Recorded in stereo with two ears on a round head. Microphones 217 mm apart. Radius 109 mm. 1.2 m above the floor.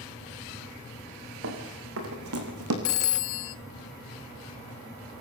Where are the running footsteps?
60° right (ahead or behind), 6 m; by 2.8 s 70° right (ahead or behind), 5.5 m.